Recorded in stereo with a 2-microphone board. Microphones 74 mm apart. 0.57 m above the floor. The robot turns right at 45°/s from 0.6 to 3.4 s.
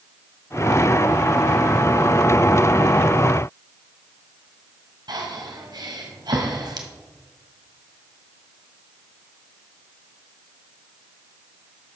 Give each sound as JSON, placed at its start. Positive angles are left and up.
{"t": 5.1, "sound": "breathing", "side_deg": -70, "distance_m": 1.9}